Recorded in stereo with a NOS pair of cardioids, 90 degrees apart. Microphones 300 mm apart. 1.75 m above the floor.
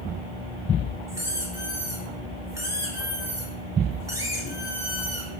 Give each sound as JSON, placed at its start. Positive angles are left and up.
{"t": 1.1, "sound": "a squeak", "azimuth_deg": -10, "distance_m": 4.0}